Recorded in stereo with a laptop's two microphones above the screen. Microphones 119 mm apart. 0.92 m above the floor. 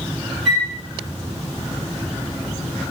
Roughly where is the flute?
Right.